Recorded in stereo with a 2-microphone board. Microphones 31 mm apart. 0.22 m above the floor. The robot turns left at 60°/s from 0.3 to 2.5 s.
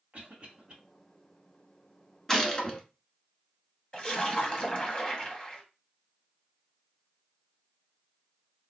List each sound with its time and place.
0.1 s a cough: 40° right (ahead or behind), 1.7 m; by 0.8 s 25° right (ahead or behind), 1.7 m
2.3 s a gunshot: 15° left (ahead or behind), 0.9 m; by 2.8 s 30° left (ahead or behind), 0.9 m
3.9 s a splash: 30° left (ahead or behind), 0.9 m